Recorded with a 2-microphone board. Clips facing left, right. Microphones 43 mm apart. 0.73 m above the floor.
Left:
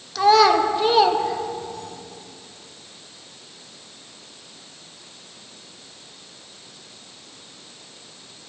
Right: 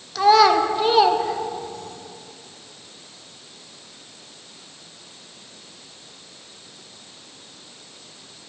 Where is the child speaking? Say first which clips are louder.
Even; centre (ahead or behind), 0.8 m.